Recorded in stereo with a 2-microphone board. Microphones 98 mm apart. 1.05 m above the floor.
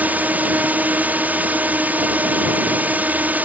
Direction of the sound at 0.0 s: 15° right (ahead or behind).